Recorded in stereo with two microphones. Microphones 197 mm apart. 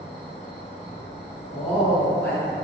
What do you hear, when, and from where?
0.0 s an insect: 30° left (ahead or behind), 0.8 m
1.5 s a woman speaking: 10° left (ahead or behind), 1.0 m